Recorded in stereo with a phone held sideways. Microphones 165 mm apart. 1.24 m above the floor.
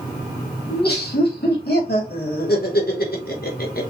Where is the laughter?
80° left, 3.5 m; by 3.9 s 65° left (ahead or behind), 1.7 m.